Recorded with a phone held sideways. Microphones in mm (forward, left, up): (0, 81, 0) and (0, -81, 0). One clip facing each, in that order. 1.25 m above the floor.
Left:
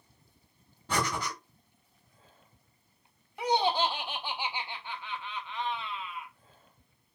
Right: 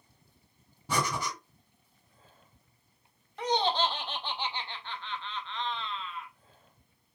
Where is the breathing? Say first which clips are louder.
Even; 10° right (ahead or behind), 2.5 m.